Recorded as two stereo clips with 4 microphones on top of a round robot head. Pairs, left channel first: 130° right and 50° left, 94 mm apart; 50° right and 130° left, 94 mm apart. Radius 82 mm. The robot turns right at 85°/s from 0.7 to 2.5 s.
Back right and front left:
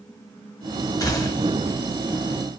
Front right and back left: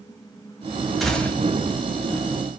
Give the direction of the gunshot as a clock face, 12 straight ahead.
5 o'clock.